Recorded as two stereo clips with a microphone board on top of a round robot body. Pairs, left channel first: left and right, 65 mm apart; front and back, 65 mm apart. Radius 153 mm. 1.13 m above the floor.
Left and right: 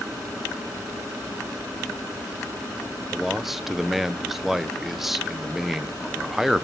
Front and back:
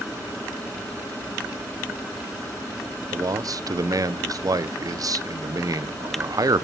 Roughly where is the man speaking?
Behind.